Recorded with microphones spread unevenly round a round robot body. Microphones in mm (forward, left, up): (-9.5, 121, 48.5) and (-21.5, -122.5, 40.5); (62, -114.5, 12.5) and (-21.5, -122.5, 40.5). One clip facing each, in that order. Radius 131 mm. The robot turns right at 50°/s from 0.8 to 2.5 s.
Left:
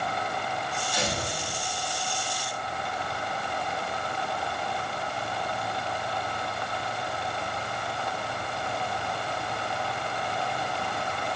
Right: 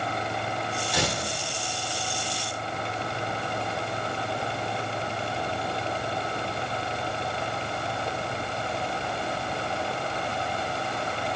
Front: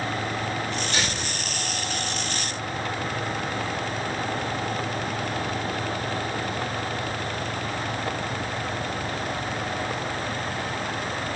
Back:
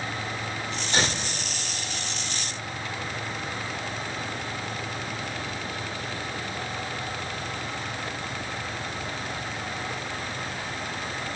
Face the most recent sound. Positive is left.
turn(degrees=-40)